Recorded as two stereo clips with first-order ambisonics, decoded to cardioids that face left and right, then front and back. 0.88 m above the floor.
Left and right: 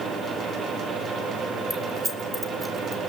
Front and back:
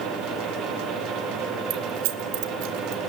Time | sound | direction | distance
1.7 | keys jangling | straight behind | 1.7 m